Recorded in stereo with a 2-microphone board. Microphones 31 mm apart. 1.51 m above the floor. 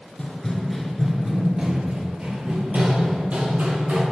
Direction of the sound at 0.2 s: 20° left (ahead or behind).